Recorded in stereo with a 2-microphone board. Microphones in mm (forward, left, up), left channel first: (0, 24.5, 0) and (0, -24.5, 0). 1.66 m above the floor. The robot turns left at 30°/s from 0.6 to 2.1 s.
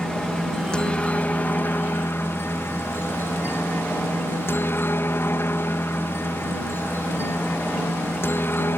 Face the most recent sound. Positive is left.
turn(degrees=120)